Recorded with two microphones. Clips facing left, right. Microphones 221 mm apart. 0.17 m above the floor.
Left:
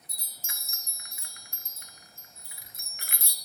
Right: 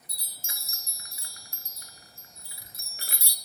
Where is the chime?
35° right (ahead or behind), 1.2 m.